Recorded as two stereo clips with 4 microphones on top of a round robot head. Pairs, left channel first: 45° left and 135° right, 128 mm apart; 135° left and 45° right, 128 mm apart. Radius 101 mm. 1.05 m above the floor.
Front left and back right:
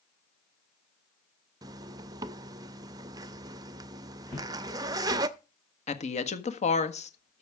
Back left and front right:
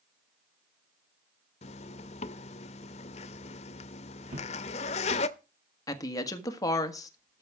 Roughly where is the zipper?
Behind.